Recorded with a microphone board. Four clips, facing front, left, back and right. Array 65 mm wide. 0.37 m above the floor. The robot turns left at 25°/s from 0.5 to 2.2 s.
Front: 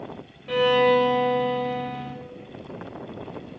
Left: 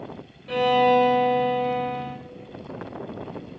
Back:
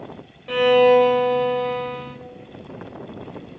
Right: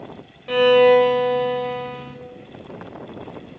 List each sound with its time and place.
0.5 s a violin: 110° right, 1.3 m; by 2.2 s 150° right, 1.3 m